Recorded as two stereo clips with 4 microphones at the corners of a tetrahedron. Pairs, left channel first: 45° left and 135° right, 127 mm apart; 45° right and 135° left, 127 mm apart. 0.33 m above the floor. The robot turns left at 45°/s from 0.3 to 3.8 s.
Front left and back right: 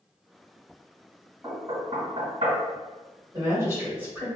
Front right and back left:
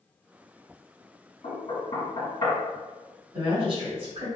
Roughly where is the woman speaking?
Behind.